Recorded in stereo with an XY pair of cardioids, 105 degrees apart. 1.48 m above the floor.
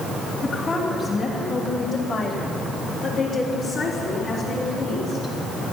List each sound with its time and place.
0.4 s a woman speaking: 35° left, 3.5 m; by 5.3 s 75° left, 4 m